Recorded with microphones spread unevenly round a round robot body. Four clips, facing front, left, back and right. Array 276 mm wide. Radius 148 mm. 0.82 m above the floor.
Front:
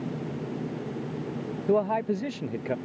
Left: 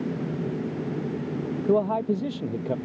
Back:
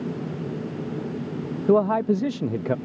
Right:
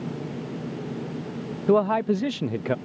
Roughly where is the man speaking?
Behind.